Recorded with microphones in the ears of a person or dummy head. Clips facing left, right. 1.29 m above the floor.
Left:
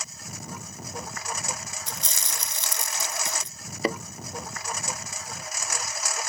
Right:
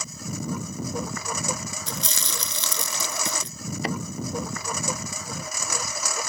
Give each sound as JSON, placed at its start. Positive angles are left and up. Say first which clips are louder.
{"t": 0.0, "sound": "a lawn mower", "louder": "right 9 dB", "side_deg": -80}
{"t": 1.9, "sound": "chewing", "louder": "right 5 dB", "side_deg": -65}
{"t": 3.8, "sound": "a thud", "louder": "left 3 dB", "side_deg": 85}